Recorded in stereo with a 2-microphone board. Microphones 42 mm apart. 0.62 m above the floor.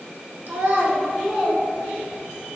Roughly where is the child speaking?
Right.